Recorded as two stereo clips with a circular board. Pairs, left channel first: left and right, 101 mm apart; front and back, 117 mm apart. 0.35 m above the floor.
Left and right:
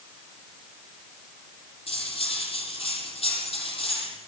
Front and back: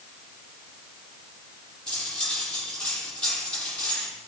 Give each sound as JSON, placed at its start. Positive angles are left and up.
{"t": 1.9, "sound": "cutlery clinking", "azimuth_deg": 80, "distance_m": 7.5}